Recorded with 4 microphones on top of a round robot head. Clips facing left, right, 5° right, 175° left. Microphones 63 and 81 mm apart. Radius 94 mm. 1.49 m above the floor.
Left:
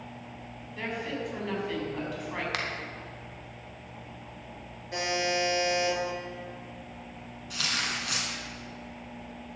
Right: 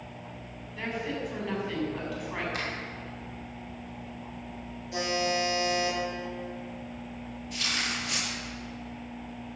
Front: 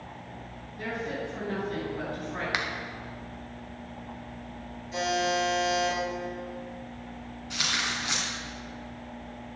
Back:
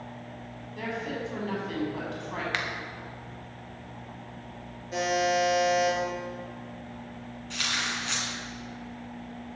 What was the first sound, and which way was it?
A woman speaking, 175° left.